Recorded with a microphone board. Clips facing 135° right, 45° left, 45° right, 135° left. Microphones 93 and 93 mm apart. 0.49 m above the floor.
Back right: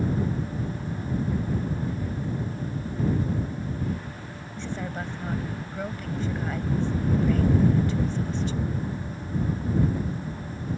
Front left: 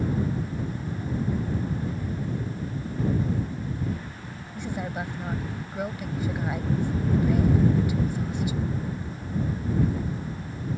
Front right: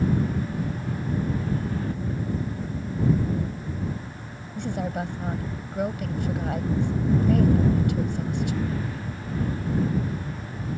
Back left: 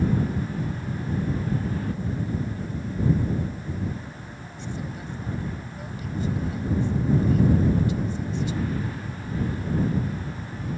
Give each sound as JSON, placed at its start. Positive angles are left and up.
{"t": 4.5, "sound": "a woman speaking", "azimuth_deg": -30}